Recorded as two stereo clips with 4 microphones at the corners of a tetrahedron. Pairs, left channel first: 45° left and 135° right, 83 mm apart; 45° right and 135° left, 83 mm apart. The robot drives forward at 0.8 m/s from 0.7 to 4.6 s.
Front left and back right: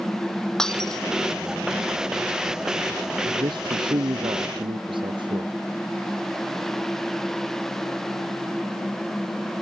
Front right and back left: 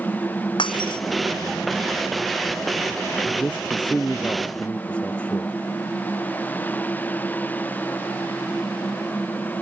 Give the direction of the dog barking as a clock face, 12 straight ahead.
I don't hear a dog barking.